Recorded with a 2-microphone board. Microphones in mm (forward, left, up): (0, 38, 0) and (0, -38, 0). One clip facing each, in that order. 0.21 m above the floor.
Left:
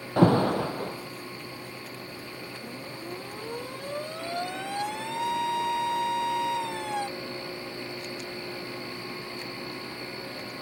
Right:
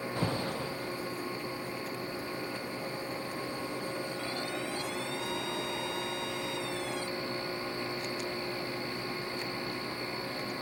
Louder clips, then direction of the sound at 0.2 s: Left 15 dB; 65° left (ahead or behind).